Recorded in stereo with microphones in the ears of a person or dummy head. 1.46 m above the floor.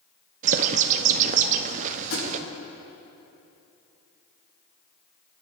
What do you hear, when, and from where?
0.4 s a bird: 45° right (ahead or behind), 0.9 m
2.1 s a thud: 75° left (ahead or behind), 6 m